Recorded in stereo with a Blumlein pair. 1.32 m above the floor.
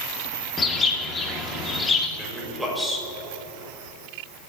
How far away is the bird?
About 2 m.